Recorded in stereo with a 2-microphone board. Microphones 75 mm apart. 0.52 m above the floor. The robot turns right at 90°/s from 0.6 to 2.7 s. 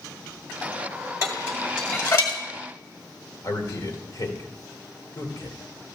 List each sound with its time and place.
1.2 s dishes clattering: 40° right (ahead or behind), 1.8 m; by 2.4 s 60° left (ahead or behind), 1.8 m
3.4 s a man speaking: 55° left (ahead or behind), 2 m